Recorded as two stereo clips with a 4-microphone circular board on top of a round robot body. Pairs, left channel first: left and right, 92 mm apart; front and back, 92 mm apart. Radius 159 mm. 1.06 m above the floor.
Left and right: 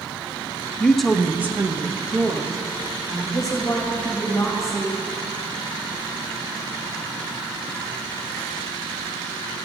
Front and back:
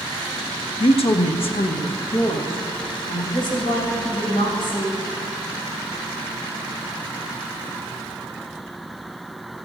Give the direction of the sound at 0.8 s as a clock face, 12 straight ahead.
12 o'clock.